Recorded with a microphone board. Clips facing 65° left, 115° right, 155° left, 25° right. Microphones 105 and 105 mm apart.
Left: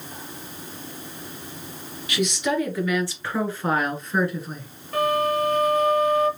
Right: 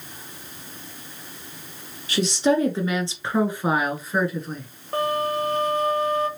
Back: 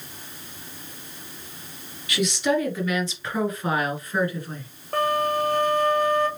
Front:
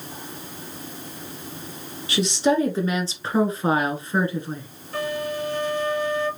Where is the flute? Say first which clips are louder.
Left 2 dB, back 5 dB; 170° right, 1.1 m.